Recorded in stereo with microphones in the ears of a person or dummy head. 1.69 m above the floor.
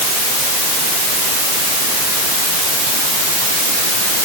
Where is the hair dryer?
I don't hear a hair dryer.